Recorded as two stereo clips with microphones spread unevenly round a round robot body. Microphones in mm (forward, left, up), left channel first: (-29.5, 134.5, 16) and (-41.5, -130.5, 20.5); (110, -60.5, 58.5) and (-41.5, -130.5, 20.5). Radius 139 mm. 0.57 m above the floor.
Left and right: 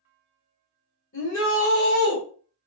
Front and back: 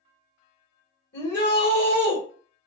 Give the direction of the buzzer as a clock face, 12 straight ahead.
No buzzer in this recording.